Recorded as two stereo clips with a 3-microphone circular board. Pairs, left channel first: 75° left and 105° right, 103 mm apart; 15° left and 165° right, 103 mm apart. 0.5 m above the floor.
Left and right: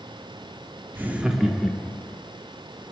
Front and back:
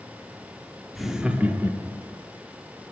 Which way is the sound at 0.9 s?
70° right.